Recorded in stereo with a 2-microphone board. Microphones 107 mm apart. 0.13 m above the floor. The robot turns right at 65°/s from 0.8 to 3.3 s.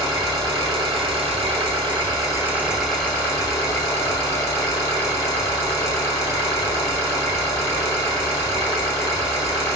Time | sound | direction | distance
0.0 | an engine running | 135° right | 1.7 m